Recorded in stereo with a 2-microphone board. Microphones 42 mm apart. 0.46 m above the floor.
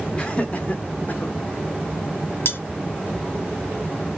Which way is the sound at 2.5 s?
65° left (ahead or behind).